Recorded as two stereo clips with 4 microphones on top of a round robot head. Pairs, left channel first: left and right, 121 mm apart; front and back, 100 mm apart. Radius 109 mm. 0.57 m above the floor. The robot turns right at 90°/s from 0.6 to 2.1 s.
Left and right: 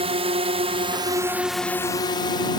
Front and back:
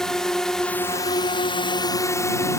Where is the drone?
85° right; by 2.6 s 50° left.